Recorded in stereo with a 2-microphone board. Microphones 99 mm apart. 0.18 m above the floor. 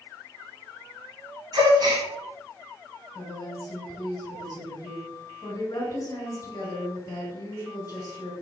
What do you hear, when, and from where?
1.5 s a gasp: 40° right (ahead or behind), 1.5 m
3.1 s a woman speaking: 35° left (ahead or behind), 1.4 m